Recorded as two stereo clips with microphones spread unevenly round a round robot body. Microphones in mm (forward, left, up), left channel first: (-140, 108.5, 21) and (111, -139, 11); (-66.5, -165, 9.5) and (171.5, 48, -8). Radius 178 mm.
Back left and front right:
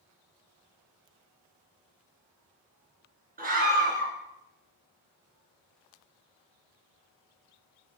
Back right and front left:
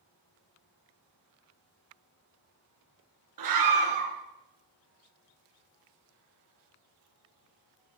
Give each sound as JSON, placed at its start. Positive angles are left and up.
{"t": 3.4, "sound": "a scream", "azimuth_deg": 25, "distance_m": 5.5}